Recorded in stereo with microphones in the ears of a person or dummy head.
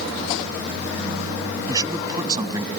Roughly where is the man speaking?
Right.